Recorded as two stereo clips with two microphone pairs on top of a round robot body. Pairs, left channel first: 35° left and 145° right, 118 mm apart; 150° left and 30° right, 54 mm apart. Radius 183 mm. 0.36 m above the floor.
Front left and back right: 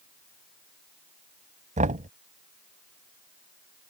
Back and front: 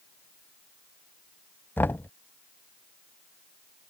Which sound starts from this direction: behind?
Knocking, at 1.8 s.